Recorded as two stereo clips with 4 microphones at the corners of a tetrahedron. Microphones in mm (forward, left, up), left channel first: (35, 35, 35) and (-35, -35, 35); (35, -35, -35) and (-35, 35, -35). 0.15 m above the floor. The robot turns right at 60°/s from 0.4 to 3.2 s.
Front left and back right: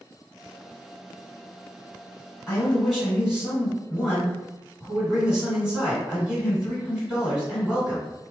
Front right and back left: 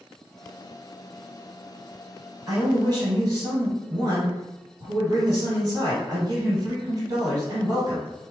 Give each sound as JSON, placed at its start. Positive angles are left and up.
{"t": 2.5, "sound": "a man speaking", "azimuth_deg": 105, "distance_m": 2.0}